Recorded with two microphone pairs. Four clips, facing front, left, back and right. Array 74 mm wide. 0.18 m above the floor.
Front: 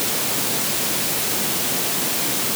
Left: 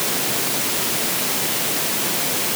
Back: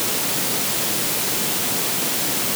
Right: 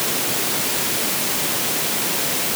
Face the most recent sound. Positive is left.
No sound to turn to.